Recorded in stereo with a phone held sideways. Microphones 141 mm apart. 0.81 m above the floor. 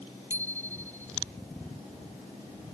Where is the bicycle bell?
20° right (ahead or behind).